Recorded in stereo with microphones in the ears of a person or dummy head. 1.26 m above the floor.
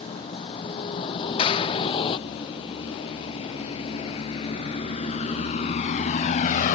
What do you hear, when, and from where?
0.0 s a vehicle: 30° left (ahead or behind); by 6.8 s 50° left (ahead or behind)
1.4 s a clap: 30° left (ahead or behind)